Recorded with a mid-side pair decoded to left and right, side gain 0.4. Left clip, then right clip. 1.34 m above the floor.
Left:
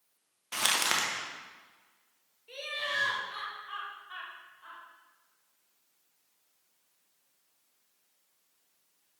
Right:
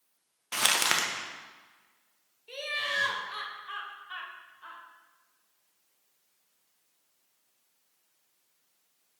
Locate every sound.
0.5 s crumpling: 25° right, 1.0 m
2.5 s laughter: 35° right, 2 m